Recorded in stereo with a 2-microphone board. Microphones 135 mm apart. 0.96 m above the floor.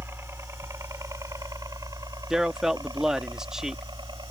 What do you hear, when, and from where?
0.0 s a helicopter: 20° right (ahead or behind); by 4.3 s 35° right (ahead or behind)
2.3 s a man speaking: 5° right (ahead or behind)